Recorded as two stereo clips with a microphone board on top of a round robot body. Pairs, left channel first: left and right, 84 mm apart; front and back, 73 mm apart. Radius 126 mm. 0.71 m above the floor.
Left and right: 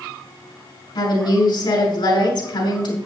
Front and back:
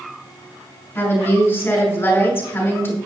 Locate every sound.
0.9 s a woman speaking: 60° left, 5.5 m